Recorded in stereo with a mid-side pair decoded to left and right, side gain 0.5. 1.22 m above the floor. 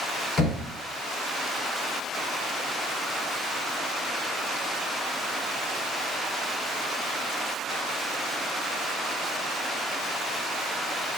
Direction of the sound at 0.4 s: 50° left.